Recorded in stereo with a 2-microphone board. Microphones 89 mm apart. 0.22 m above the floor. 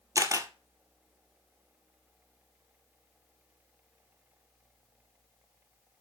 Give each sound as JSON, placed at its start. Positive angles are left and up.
{"t": 0.1, "sound": "a camera shutter", "side_deg": -35, "distance_m": 1.9}